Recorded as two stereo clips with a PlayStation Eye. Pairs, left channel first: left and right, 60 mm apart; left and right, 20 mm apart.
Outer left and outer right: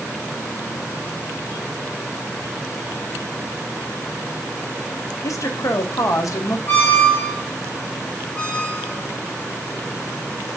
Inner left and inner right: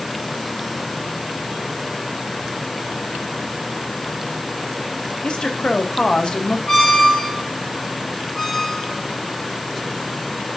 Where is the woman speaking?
65° left (ahead or behind), 0.7 m.